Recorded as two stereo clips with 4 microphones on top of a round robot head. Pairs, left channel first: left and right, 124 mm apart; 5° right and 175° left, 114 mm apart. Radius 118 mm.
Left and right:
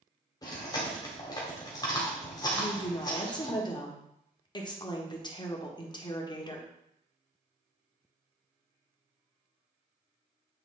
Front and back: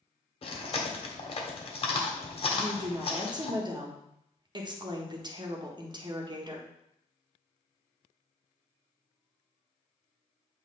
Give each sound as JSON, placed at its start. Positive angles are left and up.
{"t": 0.4, "sound": "chewing", "azimuth_deg": 30, "distance_m": 1.6}
{"t": 2.5, "sound": "a woman speaking", "azimuth_deg": 135, "distance_m": 1.5}